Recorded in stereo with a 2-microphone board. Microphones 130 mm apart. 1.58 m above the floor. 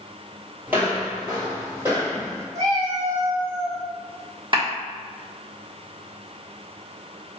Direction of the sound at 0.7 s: 15° right (ahead or behind).